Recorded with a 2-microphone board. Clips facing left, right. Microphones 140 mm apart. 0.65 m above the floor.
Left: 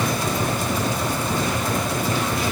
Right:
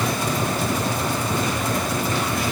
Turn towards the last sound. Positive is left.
No sound to turn to.